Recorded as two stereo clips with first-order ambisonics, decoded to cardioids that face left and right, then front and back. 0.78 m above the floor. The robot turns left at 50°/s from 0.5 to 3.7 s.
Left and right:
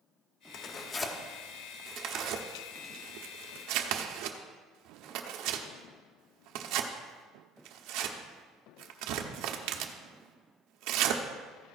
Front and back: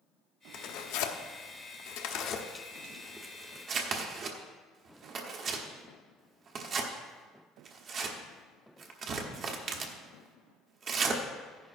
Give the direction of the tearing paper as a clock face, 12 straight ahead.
11 o'clock.